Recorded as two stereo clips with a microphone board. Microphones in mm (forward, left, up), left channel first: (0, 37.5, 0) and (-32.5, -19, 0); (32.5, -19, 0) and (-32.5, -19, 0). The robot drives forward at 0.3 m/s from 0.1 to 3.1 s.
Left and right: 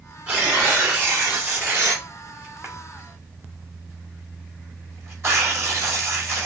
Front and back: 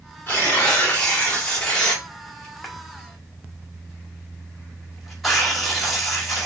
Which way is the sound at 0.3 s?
60° right.